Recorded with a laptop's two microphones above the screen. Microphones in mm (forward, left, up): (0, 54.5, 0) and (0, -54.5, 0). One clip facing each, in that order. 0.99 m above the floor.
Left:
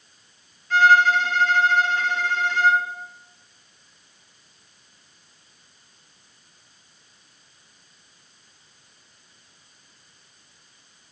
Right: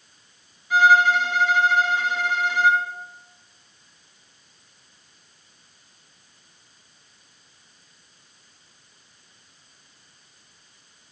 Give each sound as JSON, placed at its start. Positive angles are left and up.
{"t": 0.7, "sound": "a violin", "side_deg": -10, "distance_m": 0.6}